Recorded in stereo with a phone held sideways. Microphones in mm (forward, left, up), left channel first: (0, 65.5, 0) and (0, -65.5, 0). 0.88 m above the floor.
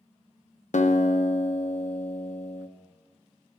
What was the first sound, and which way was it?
A guitar, 65° left (ahead or behind).